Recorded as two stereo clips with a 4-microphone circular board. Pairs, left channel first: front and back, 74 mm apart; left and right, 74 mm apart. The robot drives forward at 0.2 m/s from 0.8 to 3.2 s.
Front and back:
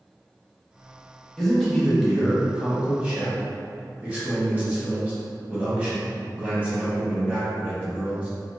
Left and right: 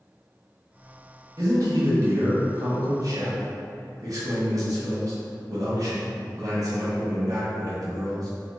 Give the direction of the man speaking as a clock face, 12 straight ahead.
3 o'clock.